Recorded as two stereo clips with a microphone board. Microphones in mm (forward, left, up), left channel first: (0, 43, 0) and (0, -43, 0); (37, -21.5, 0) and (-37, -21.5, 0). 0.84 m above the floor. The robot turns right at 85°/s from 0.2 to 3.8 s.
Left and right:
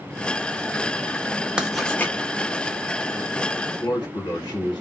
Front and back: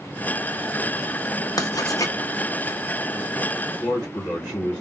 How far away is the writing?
About 0.6 m.